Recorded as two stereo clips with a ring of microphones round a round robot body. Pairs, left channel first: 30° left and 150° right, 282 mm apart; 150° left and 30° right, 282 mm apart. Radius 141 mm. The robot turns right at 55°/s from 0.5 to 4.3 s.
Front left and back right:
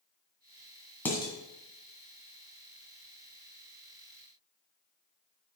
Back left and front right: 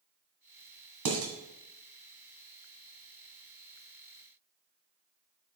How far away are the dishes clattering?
About 1.9 m.